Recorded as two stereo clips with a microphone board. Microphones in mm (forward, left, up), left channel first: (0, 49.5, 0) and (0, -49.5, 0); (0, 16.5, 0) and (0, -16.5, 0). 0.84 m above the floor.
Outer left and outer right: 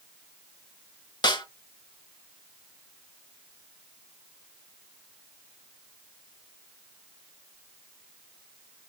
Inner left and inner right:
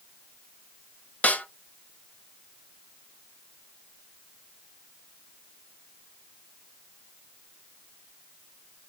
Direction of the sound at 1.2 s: 50° left (ahead or behind).